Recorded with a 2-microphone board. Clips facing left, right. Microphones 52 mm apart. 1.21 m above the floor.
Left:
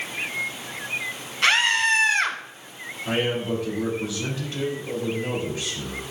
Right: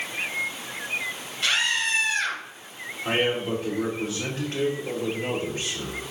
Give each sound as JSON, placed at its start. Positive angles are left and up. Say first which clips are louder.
{"t": 1.4, "sound": "a scream", "louder": "left 5 dB", "side_deg": 75, "distance_m": 1.6}
{"t": 3.0, "sound": "a man speaking", "louder": "even", "side_deg": -50, "distance_m": 4.0}